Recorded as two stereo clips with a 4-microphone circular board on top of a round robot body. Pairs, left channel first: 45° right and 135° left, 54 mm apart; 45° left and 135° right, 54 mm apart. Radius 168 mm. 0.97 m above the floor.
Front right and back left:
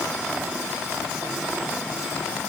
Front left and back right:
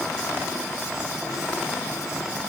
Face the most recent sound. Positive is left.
No sound to turn to.